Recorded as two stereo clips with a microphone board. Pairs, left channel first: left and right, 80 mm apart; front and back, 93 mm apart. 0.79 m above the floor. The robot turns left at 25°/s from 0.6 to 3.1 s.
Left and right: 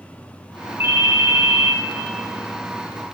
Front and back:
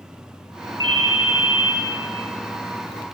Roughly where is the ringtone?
Behind right.